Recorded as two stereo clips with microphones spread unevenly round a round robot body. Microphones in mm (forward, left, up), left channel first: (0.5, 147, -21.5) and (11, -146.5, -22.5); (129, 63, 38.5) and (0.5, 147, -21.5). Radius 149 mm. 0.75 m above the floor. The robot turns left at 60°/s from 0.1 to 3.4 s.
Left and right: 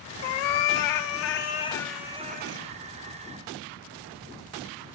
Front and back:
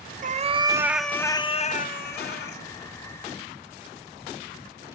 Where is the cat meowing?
105° left, 0.6 m; by 2.6 s 40° right, 0.6 m.